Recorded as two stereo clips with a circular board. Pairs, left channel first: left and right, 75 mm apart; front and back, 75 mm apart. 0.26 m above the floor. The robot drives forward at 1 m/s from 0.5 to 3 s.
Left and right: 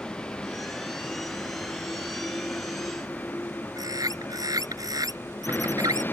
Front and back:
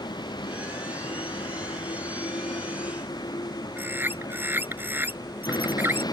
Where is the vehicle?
10° left; by 6.1 s 25° left.